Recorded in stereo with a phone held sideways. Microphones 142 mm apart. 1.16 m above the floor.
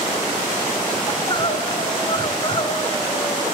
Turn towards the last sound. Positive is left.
turn(degrees=35)  # may be behind; listen again after turning